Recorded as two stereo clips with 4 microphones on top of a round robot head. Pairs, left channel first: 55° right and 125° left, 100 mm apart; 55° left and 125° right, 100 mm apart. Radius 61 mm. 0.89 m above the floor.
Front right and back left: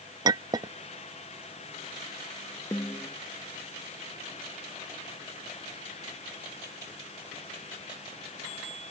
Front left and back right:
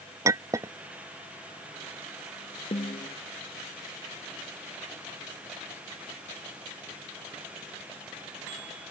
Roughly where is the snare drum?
Ahead.